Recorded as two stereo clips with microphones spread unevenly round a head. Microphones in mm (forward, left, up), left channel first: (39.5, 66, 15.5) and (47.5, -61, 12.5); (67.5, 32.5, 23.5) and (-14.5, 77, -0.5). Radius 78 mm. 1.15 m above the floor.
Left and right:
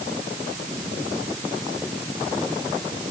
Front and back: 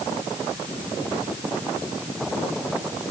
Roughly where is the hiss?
I don't hear a hiss.